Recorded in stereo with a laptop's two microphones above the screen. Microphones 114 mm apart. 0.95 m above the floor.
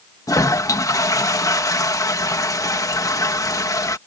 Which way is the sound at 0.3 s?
30° left (ahead or behind).